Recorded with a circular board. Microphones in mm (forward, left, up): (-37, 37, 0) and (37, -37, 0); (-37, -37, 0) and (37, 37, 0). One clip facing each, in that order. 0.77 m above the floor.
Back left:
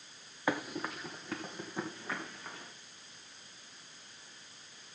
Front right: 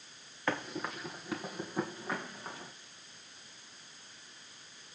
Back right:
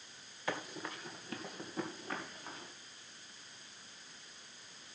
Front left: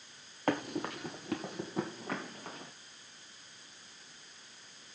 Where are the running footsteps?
60° left, 1.2 m; by 2.7 s 30° left, 4 m.